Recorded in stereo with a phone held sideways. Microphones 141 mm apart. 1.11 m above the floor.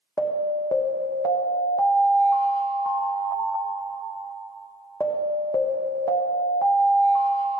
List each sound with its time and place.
0.2 s an alarm: 25° left (ahead or behind), 1.4 m